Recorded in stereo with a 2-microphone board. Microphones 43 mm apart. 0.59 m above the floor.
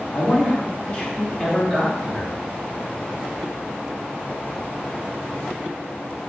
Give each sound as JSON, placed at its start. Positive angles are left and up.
{"t": 0.1, "sound": "a man speaking", "side_deg": 50, "distance_m": 1.0}